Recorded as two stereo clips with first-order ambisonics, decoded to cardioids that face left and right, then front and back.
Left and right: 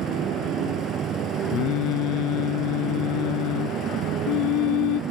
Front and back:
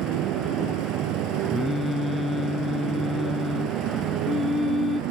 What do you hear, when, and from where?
0.0 s a motorcycle: 145° right
1.5 s singing: 80° left